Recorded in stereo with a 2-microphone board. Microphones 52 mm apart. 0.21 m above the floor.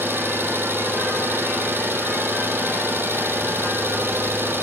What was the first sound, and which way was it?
An engine running, 45° right (ahead or behind).